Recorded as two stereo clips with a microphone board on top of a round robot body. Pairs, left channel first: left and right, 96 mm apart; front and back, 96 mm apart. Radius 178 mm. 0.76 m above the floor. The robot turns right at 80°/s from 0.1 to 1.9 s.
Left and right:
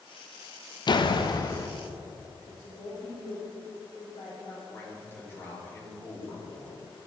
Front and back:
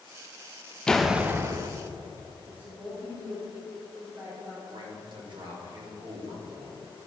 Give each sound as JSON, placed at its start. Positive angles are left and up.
{"t": 0.9, "sound": "a door slam", "azimuth_deg": 80, "distance_m": 0.8}
{"t": 2.5, "sound": "a woman speaking", "azimuth_deg": 110, "distance_m": 3.0}
{"t": 4.7, "sound": "a man speaking", "azimuth_deg": 155, "distance_m": 3.0}